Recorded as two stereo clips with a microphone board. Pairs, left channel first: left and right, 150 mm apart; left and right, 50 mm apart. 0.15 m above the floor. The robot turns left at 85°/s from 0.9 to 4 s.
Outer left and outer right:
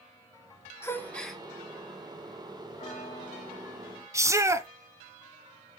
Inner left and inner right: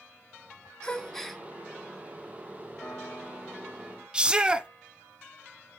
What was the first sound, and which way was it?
A gasp, 15° left (ahead or behind).